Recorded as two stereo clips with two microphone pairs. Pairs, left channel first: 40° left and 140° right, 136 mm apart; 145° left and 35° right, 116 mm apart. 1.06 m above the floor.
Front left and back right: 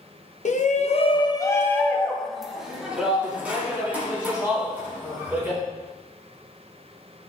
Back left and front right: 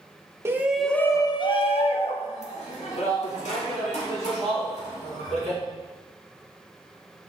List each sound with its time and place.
0.5 s a shout: 30° left, 1.1 m; by 5.6 s 145° left, 5.5 m